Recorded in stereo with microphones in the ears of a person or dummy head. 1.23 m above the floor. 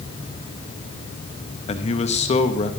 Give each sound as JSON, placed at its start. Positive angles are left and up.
{"t": 1.7, "sound": "a man speaking", "side_deg": 35, "distance_m": 1.2}